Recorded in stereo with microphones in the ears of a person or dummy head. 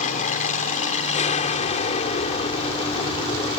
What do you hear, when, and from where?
0.0 s an aircraft: 40° left (ahead or behind); by 3.6 s 30° left (ahead or behind)